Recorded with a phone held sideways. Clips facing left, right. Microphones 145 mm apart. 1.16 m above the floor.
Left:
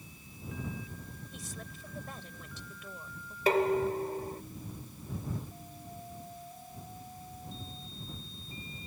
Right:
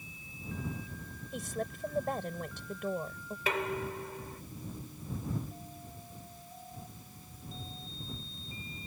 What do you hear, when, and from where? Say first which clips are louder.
1.3 s a woman speaking: right 13 dB; 60° right (ahead or behind)
3.5 s dishes clattering: left 8 dB; 40° left (ahead or behind)